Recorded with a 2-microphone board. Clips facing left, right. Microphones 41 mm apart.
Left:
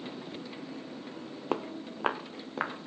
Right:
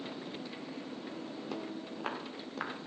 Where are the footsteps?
45° left (ahead or behind), 1.1 m; by 2.7 s 25° left (ahead or behind), 2.5 m.